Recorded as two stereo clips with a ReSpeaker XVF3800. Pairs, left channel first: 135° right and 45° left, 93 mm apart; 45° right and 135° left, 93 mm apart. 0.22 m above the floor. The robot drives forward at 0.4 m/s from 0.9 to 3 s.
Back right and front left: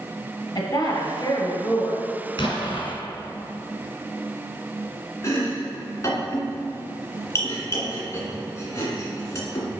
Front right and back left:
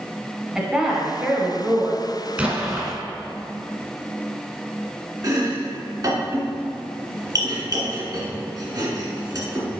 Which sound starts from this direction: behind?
Chopping, at 5.2 s.